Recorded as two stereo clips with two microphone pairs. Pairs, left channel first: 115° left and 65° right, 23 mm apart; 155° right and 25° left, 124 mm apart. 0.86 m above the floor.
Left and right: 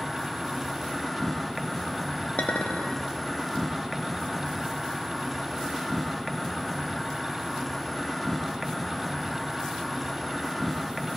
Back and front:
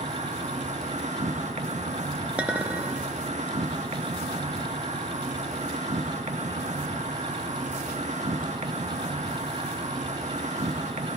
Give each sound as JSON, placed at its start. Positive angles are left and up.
{"t": 0.0, "sound": "an insect", "azimuth_deg": 30, "distance_m": 1.0}
{"t": 2.4, "sound": "a clink", "azimuth_deg": 105, "distance_m": 0.9}